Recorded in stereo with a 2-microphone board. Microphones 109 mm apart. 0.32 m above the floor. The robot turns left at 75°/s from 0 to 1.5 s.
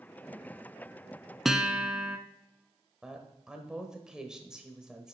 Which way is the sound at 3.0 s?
5° right (ahead or behind).